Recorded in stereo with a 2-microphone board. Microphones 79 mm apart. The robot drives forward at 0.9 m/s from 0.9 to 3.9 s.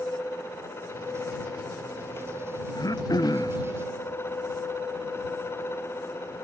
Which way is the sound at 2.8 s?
55° left (ahead or behind).